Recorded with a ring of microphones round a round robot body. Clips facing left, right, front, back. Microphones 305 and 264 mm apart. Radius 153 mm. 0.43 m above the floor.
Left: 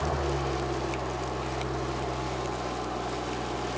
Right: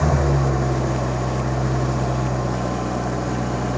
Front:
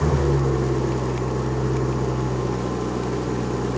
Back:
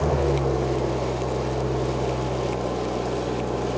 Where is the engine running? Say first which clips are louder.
Right 9 dB, front 1 dB; 70° right.